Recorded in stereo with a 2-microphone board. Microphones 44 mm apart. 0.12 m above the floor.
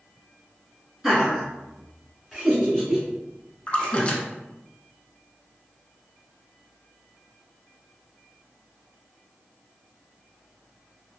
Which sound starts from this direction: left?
A splash, at 3.7 s.